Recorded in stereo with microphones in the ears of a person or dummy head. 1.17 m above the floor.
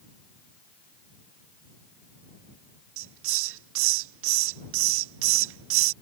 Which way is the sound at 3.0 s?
70° right (ahead or behind).